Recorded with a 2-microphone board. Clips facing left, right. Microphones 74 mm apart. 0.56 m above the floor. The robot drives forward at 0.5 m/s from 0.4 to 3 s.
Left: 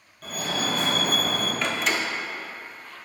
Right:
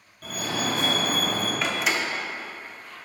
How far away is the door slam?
About 0.8 m.